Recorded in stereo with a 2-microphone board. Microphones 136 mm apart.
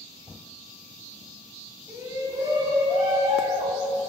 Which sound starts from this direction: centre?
A shout, at 1.9 s.